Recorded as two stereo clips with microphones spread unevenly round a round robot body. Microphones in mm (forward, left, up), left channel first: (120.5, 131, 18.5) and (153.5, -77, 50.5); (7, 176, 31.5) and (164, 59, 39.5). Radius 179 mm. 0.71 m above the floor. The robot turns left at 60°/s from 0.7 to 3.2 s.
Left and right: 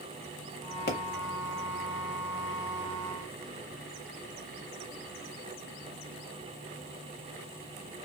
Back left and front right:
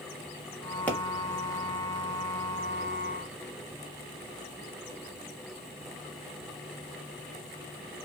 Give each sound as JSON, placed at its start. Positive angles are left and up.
{"t": 0.9, "sound": "a pop", "azimuth_deg": 60, "distance_m": 0.8}